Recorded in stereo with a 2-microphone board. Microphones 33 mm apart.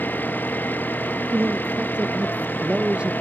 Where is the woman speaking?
35° right (ahead or behind).